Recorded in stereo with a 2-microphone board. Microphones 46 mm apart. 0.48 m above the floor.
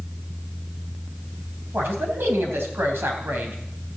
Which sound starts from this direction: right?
A man speaking, at 1.7 s.